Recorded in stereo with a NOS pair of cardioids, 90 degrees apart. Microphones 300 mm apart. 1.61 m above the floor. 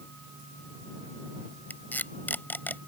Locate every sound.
1.7 s tape being pulled: 5° left